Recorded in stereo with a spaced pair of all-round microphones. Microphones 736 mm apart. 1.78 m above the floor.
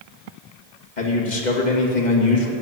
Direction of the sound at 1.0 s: 75° left (ahead or behind).